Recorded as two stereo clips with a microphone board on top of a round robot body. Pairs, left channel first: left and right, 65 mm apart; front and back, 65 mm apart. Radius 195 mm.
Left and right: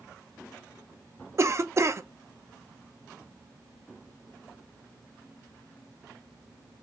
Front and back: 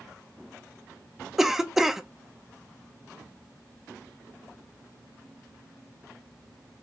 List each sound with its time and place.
1.4 s a cough: 95° right, 0.7 m